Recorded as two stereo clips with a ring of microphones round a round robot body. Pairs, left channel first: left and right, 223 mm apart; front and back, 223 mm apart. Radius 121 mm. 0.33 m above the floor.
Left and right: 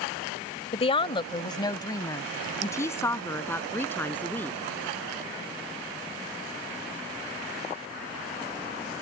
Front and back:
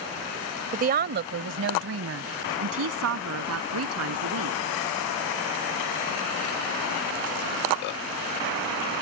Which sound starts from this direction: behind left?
A woman speaking, at 0.7 s.